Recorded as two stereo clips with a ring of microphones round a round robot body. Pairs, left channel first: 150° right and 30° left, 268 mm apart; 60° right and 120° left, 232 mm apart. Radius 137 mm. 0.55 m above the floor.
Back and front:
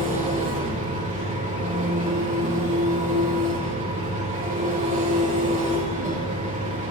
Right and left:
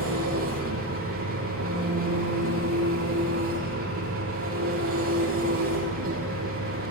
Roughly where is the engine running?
Left.